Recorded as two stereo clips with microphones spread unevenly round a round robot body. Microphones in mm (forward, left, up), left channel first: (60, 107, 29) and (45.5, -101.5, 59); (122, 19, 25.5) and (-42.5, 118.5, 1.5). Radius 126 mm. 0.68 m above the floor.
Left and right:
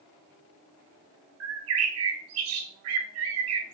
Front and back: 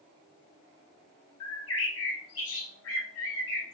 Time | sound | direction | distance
1.4 | a bird | 70° right | 0.5 m